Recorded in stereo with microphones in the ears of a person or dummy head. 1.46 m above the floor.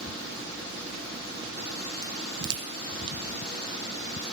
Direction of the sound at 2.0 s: 25° right (ahead or behind).